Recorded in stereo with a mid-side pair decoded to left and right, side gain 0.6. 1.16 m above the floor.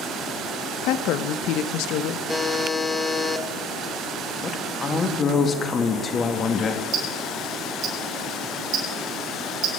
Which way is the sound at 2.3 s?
10° left.